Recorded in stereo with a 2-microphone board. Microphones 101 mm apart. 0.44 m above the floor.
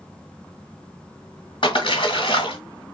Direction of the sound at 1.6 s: 60° left (ahead or behind).